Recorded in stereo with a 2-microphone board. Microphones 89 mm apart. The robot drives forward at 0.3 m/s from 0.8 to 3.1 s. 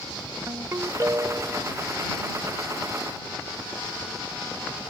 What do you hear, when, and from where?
0.5 s a ringtone: 35° right (ahead or behind); by 1.7 s 30° right (ahead or behind)